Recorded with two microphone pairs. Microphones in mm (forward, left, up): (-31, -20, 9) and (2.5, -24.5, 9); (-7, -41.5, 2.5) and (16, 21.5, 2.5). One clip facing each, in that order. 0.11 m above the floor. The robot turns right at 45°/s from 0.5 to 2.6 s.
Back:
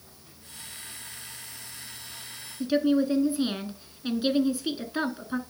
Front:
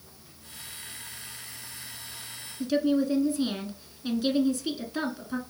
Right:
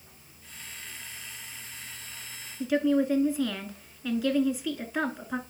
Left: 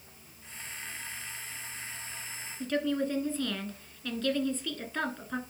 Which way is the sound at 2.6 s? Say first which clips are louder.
Back 1 dB, right 6 dB; 165° right.